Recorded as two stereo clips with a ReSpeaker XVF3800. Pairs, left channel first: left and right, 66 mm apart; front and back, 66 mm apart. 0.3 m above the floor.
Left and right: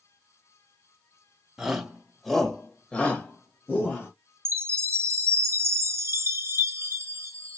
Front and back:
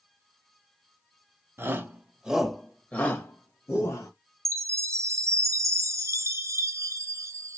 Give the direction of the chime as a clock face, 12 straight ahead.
5 o'clock.